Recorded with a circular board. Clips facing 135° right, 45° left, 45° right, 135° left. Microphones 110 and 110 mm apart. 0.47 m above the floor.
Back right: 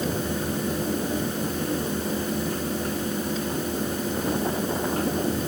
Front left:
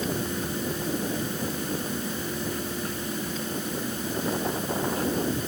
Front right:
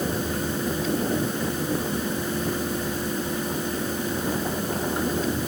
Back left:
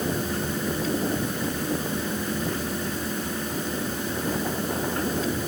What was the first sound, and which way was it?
Only background noise.